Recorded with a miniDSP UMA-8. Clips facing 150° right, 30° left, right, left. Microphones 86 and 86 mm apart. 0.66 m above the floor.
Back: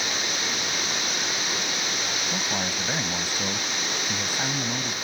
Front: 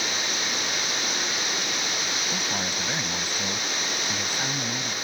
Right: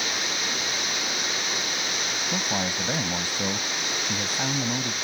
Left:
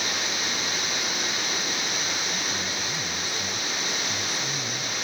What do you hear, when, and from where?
2.3 s a man speaking: 70° right